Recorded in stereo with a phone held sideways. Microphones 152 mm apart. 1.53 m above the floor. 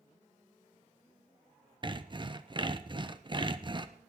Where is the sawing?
35° right (ahead or behind), 0.9 m.